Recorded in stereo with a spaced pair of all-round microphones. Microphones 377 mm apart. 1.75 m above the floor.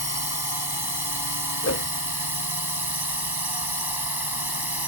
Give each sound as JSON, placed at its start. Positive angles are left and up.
{"t": 0.0, "sound": "a drone", "side_deg": -75}
{"t": 1.6, "sound": "a whoosh", "side_deg": 40}